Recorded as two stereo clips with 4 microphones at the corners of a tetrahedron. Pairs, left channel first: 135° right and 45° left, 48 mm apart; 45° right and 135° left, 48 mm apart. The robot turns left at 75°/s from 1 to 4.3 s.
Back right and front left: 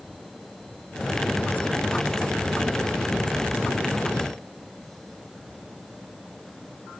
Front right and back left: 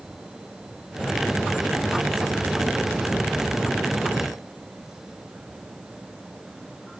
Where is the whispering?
No whispering in this recording.